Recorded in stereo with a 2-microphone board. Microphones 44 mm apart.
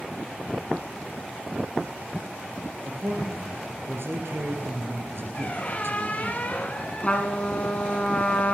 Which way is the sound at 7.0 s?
30° left (ahead or behind).